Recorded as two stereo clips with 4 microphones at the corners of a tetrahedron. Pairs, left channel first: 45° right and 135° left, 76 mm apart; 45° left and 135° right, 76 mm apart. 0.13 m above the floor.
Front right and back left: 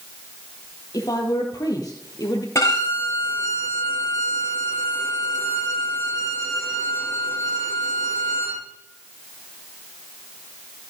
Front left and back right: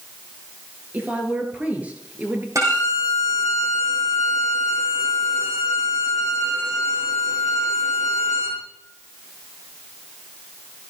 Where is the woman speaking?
70° right, 2.5 m.